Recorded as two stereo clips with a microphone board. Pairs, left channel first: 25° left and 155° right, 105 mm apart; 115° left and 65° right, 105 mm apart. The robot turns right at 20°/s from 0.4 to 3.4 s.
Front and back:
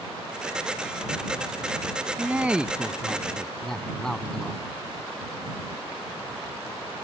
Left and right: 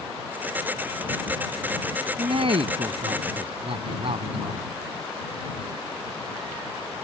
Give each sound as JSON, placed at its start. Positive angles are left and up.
{"t": 2.2, "sound": "a man speaking", "azimuth_deg": -85}